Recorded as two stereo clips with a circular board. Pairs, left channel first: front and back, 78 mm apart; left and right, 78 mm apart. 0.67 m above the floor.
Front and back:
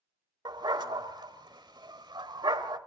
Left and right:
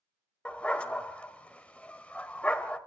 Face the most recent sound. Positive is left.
turn(degrees=165)